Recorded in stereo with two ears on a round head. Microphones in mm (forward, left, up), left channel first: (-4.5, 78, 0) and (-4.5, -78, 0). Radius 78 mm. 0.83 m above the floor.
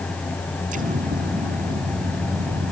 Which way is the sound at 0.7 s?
45° right (ahead or behind).